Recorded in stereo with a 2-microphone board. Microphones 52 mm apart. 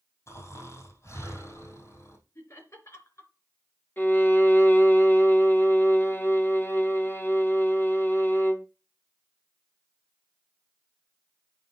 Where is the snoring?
55° left (ahead or behind), 3.5 m.